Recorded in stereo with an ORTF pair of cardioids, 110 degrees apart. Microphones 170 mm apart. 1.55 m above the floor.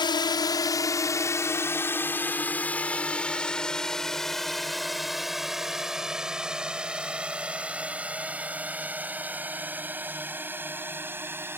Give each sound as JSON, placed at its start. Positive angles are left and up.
{"t": 0.0, "sound": "a drone", "azimuth_deg": 25}